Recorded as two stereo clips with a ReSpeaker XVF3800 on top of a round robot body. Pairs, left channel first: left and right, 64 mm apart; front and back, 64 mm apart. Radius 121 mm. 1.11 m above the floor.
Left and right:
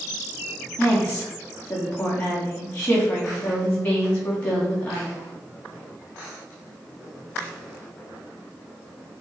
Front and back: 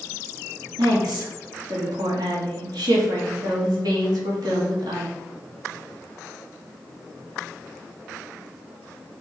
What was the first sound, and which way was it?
A woman speaking, 155° left.